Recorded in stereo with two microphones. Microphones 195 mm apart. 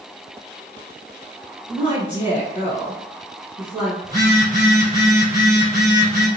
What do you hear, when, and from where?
1.7 s a woman speaking: 5° right (ahead or behind), 1.2 m
4.0 s a phone buzzing: 20° right (ahead or behind), 1.7 m